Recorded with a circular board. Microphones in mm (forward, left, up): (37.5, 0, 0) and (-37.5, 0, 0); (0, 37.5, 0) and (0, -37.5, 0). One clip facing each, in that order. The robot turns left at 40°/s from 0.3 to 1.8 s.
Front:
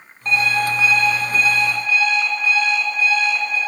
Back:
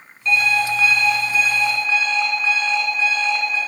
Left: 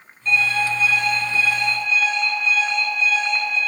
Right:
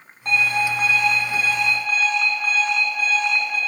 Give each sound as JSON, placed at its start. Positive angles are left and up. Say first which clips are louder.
{"t": 0.2, "sound": "an alarm clock", "louder": "even, even", "azimuth_deg": -55, "distance_m": 3.0}